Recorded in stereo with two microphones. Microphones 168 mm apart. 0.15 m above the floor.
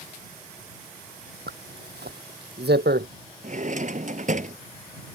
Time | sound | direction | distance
1.5 | a zipper | 80° right | ?
3.4 | a drawer | 50° right (ahead or behind) | ?